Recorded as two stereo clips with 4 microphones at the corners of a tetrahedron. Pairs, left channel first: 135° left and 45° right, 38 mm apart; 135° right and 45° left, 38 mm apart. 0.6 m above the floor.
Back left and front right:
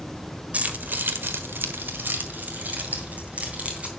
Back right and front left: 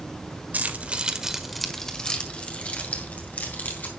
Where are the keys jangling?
5° left, 1.5 m; by 3.9 s 95° right, 3.5 m.